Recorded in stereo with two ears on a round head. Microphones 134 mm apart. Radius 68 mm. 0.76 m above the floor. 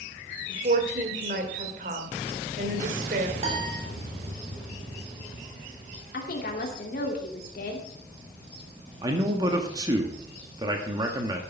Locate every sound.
0.5 s a woman speaking: 55° right (ahead or behind), 2.5 m
3.4 s a piano: 40° right (ahead or behind), 2.5 m
6.1 s a woman speaking: 60° left (ahead or behind), 2.5 m
9.0 s a man speaking: 25° right (ahead or behind), 1.4 m